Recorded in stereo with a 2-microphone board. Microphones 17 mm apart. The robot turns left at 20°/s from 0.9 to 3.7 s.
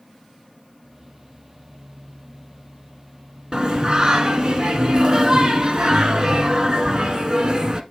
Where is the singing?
40° right (ahead or behind), 1.1 m; by 7.8 s 45° right (ahead or behind), 1.1 m.